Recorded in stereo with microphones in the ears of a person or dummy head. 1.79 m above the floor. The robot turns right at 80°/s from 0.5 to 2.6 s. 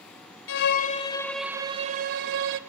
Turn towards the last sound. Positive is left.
turn(degrees=-85)